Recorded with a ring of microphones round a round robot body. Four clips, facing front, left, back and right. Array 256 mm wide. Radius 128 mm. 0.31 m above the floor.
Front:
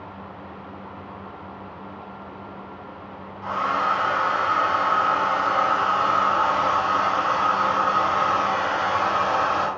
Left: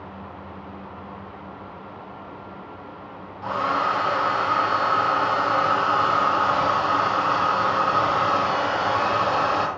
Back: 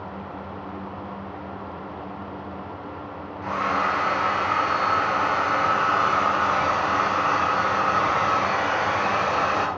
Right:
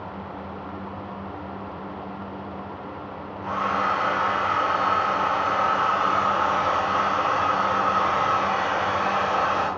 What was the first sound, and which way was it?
A hair dryer, 115° left.